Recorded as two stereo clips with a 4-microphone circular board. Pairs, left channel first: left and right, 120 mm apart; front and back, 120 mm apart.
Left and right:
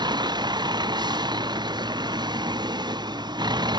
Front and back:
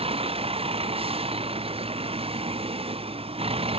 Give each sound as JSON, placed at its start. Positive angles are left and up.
{"t": 0.0, "sound": "a vehicle", "azimuth_deg": -145}